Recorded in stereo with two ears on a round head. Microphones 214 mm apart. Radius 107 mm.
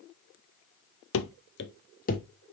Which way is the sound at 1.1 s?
60° left (ahead or behind).